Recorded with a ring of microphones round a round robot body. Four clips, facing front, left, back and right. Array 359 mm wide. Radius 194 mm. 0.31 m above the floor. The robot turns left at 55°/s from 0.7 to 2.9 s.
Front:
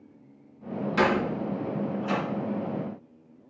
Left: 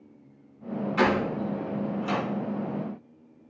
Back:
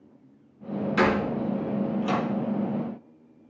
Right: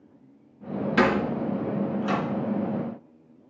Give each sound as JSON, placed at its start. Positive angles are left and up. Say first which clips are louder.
{"t": 1.0, "sound": "a door slam", "louder": "right 2 dB, back 1 dB", "azimuth_deg": -95, "distance_m": 4.5}